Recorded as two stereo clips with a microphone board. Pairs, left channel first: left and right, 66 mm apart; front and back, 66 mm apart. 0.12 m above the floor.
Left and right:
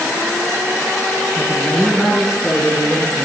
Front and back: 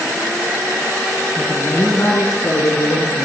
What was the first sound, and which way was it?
A woman speaking, 10° right.